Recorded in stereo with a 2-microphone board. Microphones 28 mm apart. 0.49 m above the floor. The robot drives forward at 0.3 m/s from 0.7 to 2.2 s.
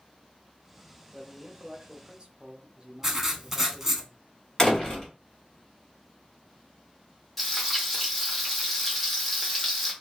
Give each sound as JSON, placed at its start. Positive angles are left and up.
{"t": 1.1, "sound": "a man speaking", "side_deg": -35, "distance_m": 0.8}
{"t": 3.0, "sound": "writing", "side_deg": -15, "distance_m": 0.6}
{"t": 4.6, "sound": "a door slam", "side_deg": 25, "distance_m": 1.3}
{"t": 7.4, "sound": "frying", "side_deg": 5, "distance_m": 1.1}